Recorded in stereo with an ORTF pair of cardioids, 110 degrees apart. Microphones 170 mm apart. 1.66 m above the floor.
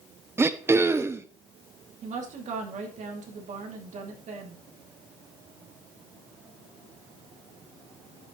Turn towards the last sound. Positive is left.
turn(degrees=-50)